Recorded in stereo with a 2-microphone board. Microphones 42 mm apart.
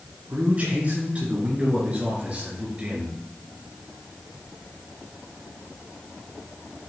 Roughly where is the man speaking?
Right.